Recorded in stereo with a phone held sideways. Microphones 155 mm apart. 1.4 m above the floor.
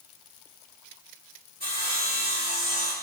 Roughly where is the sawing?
Left.